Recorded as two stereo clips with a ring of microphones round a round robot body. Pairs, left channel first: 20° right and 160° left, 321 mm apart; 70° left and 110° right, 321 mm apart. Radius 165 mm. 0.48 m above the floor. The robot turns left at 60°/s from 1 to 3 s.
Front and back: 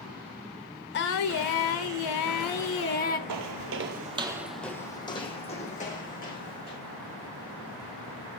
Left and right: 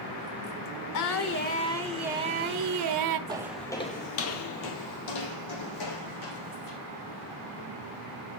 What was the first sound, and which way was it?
Singing, 35° left.